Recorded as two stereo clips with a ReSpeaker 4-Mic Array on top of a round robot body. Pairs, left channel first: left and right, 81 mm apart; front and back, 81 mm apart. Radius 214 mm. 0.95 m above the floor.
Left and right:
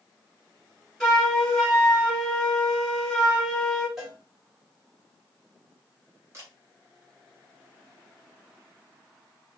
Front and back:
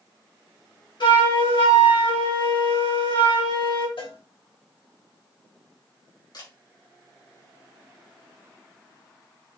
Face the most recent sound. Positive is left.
turn(degrees=-35)